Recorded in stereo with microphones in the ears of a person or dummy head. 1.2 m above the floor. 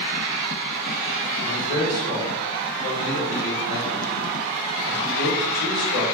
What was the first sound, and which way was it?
A man speaking, 45° left (ahead or behind).